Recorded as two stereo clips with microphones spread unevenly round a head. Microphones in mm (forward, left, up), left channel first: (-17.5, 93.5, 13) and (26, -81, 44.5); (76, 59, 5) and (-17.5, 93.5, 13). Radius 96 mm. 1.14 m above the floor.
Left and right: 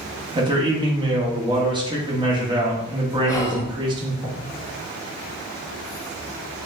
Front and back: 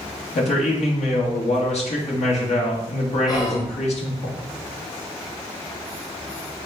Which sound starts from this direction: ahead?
A man speaking, at 0.3 s.